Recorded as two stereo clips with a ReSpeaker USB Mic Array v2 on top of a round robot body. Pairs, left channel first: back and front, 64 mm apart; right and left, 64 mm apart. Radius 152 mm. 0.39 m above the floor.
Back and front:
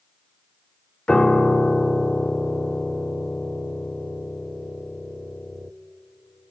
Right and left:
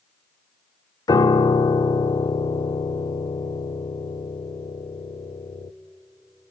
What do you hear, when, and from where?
1.1 s a piano: 105° right, 0.5 m